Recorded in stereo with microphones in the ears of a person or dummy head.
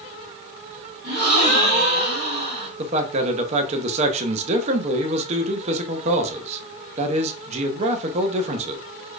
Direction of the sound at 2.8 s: 35° right (ahead or behind).